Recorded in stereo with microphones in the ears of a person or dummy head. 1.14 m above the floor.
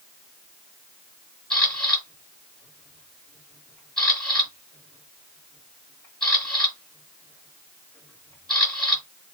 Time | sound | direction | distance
1.5 | a camera shutter | centre (ahead or behind) | 1.9 m